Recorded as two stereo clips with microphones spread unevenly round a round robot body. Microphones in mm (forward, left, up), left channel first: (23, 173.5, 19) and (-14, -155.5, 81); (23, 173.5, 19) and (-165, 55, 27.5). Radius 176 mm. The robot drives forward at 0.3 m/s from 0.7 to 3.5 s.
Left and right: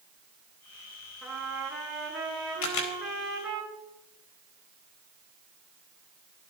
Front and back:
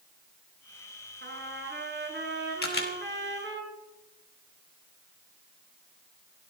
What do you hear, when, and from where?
1.2 s a trumpet: 175° left, 4 m
2.6 s a camera shutter: 75° left, 4.5 m